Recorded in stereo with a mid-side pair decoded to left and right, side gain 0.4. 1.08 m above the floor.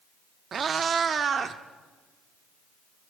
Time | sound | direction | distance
0.5 | a cat meowing | 55° right | 1.0 m